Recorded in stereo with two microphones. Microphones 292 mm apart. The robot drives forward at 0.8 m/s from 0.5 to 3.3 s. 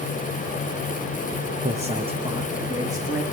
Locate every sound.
1.6 s a man speaking: 25° right (ahead or behind), 0.9 m; by 3.2 s 10° right (ahead or behind), 1.9 m